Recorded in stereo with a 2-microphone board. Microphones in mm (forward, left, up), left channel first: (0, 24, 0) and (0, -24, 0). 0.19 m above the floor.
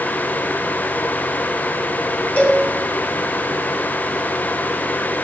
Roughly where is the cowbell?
Left.